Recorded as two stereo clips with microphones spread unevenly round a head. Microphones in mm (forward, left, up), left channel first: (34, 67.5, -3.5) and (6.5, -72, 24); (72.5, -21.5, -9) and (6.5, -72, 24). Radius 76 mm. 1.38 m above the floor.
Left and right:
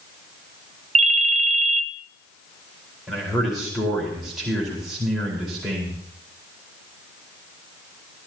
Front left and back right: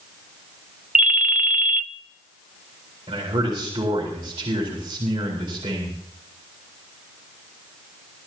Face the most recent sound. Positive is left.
turn(degrees=170)